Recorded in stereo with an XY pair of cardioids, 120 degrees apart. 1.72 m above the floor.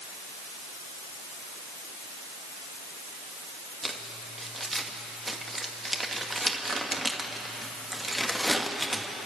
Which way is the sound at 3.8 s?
15° right.